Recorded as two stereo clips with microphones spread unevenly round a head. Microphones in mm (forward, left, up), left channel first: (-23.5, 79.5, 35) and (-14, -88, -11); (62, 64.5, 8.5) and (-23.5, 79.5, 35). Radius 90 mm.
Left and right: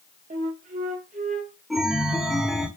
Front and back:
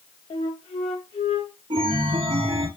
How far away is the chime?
About 0.7 m.